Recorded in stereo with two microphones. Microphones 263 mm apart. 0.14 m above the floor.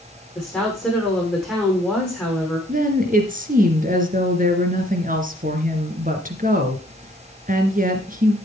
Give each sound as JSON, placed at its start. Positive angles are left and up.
{"t": 0.3, "sound": "a woman speaking", "side_deg": 5, "distance_m": 7.0}
{"t": 2.7, "sound": "a woman speaking", "side_deg": -30, "distance_m": 2.5}